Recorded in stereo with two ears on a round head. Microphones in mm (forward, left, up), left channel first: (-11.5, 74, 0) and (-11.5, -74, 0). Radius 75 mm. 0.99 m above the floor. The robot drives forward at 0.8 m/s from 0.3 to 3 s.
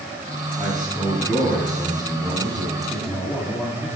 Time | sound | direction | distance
0.6 | a man speaking | centre (ahead or behind) | 6.5 m
2.9 | a man speaking | 10° left (ahead or behind) | 2.5 m